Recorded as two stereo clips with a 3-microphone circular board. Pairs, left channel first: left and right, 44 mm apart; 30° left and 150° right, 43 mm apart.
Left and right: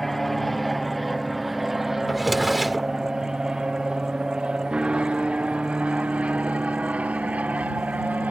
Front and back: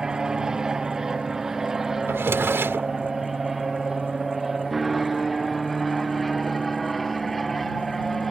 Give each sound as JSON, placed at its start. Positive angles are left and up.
{"t": 0.0, "sound": "an aircraft", "azimuth_deg": 165}
{"t": 2.1, "sound": "a drawer", "azimuth_deg": 180}